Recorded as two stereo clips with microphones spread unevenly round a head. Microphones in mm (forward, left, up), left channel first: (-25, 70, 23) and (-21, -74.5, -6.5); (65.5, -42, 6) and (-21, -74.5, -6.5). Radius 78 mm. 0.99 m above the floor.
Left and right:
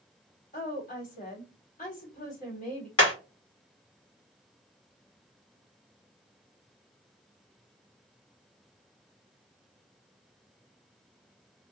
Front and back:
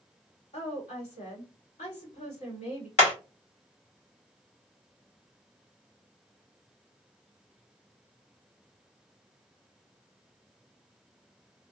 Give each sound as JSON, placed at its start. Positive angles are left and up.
{"t": 0.5, "sound": "a woman speaking", "azimuth_deg": 45, "distance_m": 2.0}
{"t": 3.0, "sound": "hammering", "azimuth_deg": 30, "distance_m": 1.7}